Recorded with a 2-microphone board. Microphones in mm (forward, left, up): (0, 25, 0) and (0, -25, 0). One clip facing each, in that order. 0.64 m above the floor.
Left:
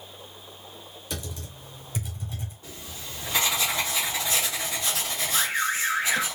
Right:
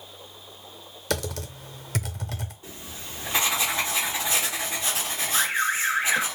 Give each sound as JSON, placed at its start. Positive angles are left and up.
{"t": 1.1, "sound": "typing on a keyboard", "side_deg": -75, "distance_m": 0.6}
{"t": 2.6, "sound": "writing", "side_deg": -20, "distance_m": 1.7}
{"t": 5.3, "sound": "an alarm", "side_deg": -10, "distance_m": 0.5}